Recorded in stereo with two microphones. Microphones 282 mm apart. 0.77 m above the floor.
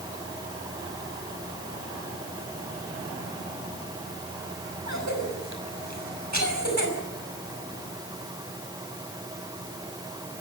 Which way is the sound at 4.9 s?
75° right (ahead or behind).